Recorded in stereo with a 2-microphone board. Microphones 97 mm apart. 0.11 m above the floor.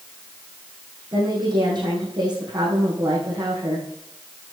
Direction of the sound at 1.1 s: 50° right (ahead or behind).